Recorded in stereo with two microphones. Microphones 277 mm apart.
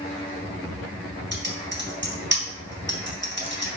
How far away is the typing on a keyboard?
About 3 m.